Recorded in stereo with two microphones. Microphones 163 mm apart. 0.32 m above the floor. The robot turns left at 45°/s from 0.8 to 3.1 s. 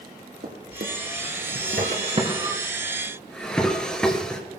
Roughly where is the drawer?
Right.